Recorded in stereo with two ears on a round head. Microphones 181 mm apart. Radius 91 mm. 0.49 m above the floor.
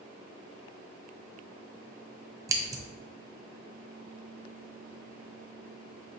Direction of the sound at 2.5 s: 15° right (ahead or behind).